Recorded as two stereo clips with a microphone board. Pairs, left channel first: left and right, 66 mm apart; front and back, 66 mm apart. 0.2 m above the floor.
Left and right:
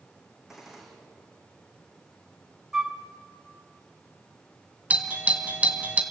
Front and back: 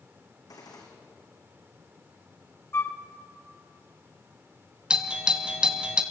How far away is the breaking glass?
I don't hear breaking glass.